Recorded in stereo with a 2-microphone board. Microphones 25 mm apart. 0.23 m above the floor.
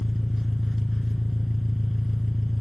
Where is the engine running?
5° right (ahead or behind), 1.9 m.